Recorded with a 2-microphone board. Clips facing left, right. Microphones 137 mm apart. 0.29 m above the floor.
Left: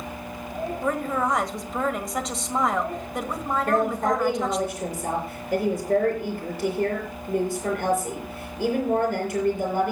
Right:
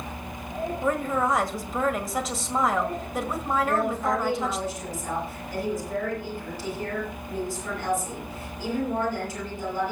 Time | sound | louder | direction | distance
0.8 | a woman speaking | right 1 dB | centre (ahead or behind) | 1.4 m
3.7 | a woman speaking | left 7 dB | 60° left (ahead or behind) | 6.5 m